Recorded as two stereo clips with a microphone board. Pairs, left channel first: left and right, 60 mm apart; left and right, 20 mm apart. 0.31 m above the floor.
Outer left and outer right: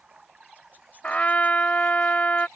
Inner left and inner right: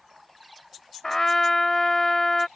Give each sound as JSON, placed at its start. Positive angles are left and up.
{"t": 0.0, "sound": "running water", "side_deg": -15}
{"t": 1.0, "sound": "a trumpet", "side_deg": 25}